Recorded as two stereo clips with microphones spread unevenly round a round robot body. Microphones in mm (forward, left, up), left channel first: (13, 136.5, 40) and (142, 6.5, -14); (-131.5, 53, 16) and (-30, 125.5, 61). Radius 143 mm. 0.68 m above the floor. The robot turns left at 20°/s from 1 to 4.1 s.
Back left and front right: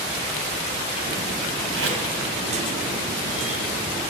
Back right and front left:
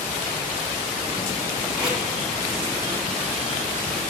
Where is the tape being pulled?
50° right, 2.5 m; by 2.0 s 55° right, 2.5 m.